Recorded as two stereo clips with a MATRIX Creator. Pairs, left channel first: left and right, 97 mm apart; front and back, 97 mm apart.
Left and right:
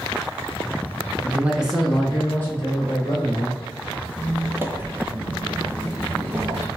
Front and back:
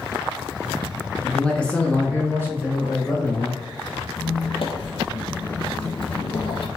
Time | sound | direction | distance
1.2 | a man speaking | 65° right | 1.1 m
4.2 | a squeak | 20° right | 0.8 m